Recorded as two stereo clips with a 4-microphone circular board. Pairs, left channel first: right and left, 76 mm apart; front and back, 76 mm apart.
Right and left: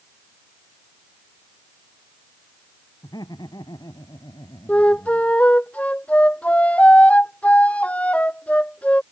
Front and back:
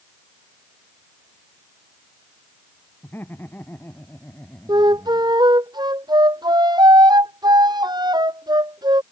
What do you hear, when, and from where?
3.0 s laughter: 65° right
4.7 s a flute: 160° right